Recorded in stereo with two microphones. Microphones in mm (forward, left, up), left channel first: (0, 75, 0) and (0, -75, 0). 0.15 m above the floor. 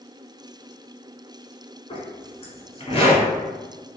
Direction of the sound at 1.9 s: 40° left (ahead or behind).